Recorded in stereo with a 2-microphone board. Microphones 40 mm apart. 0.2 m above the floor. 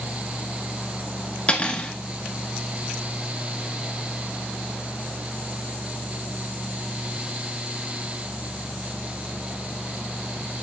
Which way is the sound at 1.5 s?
30° left (ahead or behind).